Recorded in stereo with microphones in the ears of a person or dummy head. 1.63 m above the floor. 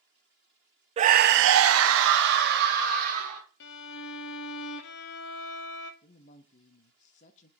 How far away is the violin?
About 1.0 m.